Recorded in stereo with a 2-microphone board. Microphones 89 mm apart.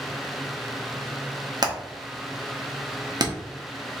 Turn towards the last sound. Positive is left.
turn(degrees=-50)  # may be behind; listen again after turning